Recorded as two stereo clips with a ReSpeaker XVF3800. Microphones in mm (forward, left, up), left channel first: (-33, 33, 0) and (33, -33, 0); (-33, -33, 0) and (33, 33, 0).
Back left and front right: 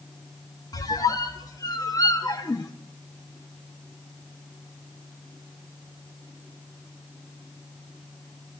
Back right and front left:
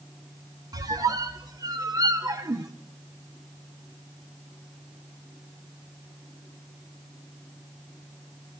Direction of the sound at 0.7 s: 90° left.